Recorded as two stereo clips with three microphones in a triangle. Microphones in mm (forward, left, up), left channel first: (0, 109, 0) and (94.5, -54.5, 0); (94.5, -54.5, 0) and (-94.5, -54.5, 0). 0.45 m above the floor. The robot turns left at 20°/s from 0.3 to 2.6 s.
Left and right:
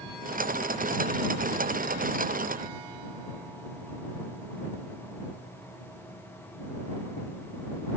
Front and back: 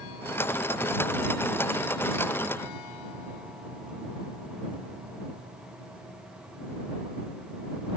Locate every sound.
Only background noise.